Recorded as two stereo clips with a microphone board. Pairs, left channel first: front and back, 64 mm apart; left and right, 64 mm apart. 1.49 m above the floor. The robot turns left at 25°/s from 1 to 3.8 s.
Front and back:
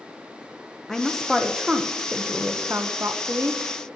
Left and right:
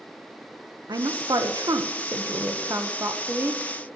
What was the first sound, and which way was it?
A woman speaking, 85° right.